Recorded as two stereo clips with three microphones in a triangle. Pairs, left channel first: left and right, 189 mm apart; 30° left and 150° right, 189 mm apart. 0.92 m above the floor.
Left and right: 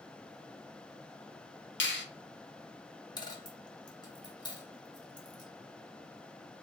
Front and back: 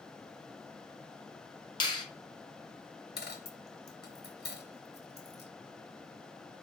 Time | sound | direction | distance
1.8 | a finger snap | 95° left | 0.6 m
3.2 | a dropped coin | 30° left | 0.7 m